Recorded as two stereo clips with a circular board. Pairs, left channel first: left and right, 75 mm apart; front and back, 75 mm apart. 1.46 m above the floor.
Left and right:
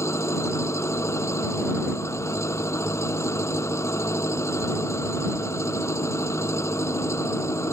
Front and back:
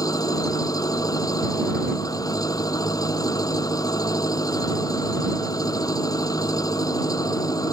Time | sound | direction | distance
0.0 | an engine running | 40° left | ?